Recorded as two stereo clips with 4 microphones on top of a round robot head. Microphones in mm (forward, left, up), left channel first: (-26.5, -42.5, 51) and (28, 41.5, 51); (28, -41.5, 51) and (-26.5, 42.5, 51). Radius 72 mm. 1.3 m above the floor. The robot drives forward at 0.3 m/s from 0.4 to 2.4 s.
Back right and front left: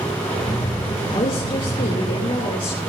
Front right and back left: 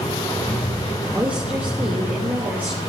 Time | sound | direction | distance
1.1 | a woman speaking | 165° right | 3.5 m